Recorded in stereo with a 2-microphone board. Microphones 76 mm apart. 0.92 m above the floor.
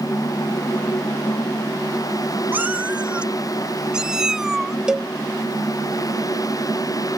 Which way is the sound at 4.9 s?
10° right (ahead or behind).